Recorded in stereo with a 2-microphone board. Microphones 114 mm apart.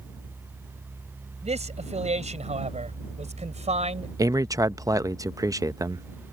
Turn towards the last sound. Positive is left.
turn(degrees=-30)  # may be behind; listen again after turning